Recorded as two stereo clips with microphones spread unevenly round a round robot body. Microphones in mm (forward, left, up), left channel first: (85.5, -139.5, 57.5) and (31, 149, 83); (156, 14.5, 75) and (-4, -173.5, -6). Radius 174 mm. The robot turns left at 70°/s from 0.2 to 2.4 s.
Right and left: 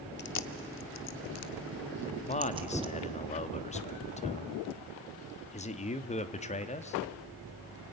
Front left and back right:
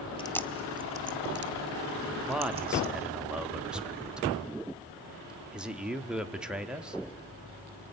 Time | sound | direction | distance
0.2 | chewing | 30° right | 1.0 m
2.3 | a man speaking | 85° right | 1.1 m